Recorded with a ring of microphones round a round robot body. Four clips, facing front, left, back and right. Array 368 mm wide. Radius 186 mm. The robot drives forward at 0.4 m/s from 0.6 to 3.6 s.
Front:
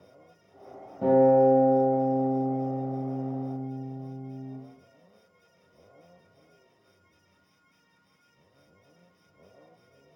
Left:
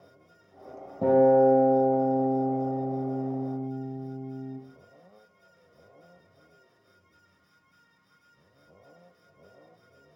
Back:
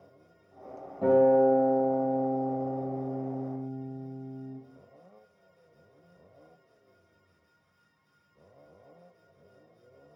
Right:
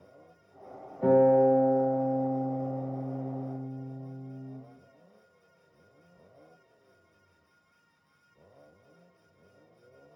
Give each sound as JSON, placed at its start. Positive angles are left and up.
{"t": 1.0, "sound": "a guitar", "azimuth_deg": 75, "distance_m": 3.0}